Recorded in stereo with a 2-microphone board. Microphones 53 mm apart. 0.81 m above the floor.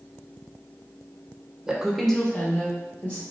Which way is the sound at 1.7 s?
10° right (ahead or behind).